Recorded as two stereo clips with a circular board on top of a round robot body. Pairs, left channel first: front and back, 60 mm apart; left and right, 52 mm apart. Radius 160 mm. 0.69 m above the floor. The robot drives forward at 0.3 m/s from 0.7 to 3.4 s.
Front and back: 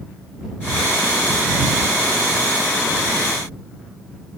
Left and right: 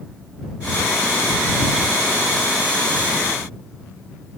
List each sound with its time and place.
Only background noise.